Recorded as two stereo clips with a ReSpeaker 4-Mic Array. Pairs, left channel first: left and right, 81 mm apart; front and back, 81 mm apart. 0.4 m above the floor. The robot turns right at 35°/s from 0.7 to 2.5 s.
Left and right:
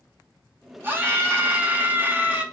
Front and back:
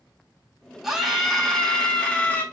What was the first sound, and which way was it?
A scream, 105° right.